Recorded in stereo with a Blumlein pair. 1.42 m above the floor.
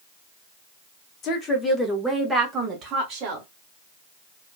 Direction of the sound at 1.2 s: 30° left.